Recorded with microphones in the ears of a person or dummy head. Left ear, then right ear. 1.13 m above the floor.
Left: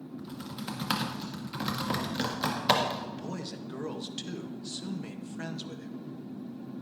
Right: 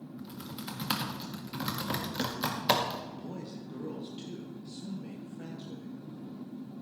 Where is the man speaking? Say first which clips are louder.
Left 4 dB; 50° left (ahead or behind), 1.3 m.